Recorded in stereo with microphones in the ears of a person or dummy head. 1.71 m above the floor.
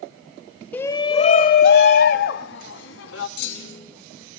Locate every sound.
0.7 s a shout: 10° left (ahead or behind), 1.1 m; by 3.3 s 75° left (ahead or behind), 3 m
3.4 s a clunk: 65° left (ahead or behind), 5.5 m